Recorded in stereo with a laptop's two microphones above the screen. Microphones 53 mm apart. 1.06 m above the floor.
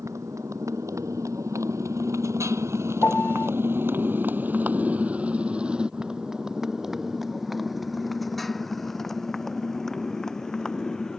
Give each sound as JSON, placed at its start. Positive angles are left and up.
{"t": 0.0, "sound": "a motorcycle", "side_deg": -80}
{"t": 3.0, "sound": "a piano", "side_deg": 30}